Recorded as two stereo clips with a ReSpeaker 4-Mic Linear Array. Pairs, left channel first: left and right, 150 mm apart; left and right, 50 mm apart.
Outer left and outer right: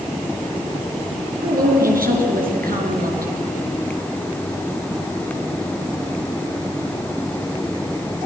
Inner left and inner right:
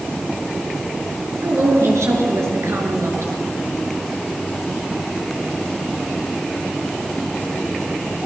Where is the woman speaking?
75° right (ahead or behind), 5 m.